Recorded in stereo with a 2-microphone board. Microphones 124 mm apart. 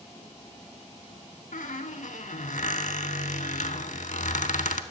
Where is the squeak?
90° left, 0.5 m.